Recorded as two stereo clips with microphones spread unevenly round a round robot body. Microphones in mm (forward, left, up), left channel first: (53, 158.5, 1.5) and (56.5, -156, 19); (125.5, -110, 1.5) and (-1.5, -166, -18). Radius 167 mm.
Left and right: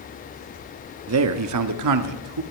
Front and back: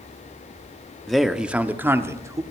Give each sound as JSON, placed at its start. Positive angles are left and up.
{"t": 1.1, "sound": "a man speaking", "azimuth_deg": -70, "distance_m": 1.2}